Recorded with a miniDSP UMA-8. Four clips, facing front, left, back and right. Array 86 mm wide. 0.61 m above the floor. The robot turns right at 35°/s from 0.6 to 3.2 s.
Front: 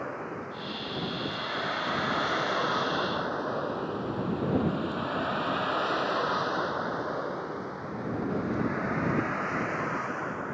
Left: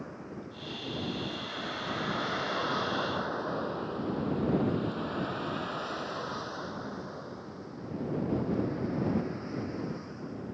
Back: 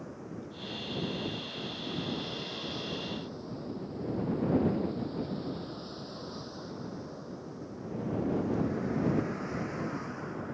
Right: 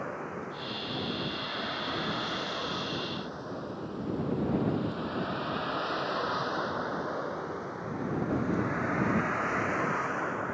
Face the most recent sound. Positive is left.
turn(degrees=-60)